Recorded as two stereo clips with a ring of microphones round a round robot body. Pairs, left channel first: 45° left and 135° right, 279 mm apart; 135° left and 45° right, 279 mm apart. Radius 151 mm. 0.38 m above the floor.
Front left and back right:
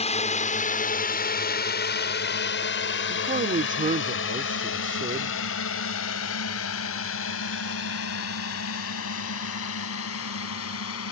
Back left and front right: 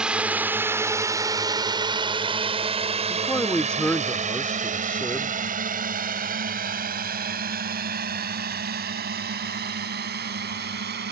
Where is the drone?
35° left; by 11.1 s 10° left.